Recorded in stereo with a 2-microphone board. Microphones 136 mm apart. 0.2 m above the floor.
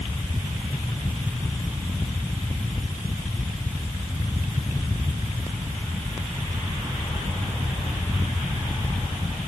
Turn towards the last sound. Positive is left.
No sound to turn to.